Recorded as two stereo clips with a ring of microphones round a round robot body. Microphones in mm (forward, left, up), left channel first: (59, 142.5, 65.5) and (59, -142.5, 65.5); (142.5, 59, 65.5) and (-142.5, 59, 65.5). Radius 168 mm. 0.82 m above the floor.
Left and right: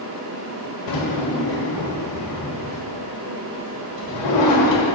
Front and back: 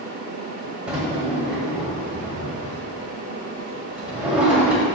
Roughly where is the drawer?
Left.